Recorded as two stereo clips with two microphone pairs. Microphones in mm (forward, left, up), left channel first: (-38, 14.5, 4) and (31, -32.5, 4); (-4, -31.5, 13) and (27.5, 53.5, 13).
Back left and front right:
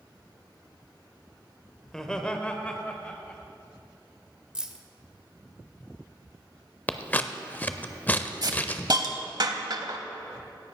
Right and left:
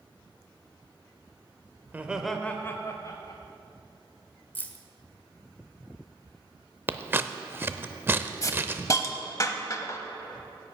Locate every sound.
1.9 s laughter: 65° left, 1.0 m; by 3.4 s 145° right, 1.6 m
4.5 s keys jangling: 90° right, 0.9 m
6.9 s scissors: 100° left, 0.5 m
8.4 s a hiss: 60° right, 0.8 m